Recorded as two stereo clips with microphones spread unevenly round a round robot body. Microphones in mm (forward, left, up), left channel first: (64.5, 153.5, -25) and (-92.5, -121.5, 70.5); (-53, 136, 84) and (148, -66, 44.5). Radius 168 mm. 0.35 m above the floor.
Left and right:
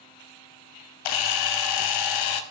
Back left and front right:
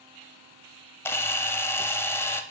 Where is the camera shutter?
50° left, 0.5 m.